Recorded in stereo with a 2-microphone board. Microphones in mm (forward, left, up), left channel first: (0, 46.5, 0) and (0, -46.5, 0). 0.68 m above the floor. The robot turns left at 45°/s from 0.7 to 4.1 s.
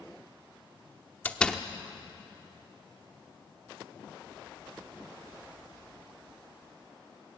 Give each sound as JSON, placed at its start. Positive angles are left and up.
{"t": 1.2, "sound": "a door slam", "side_deg": 20, "distance_m": 0.8}